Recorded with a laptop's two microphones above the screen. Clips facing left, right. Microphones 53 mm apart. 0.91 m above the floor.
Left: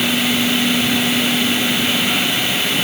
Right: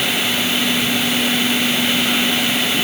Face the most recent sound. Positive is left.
No sound to turn to.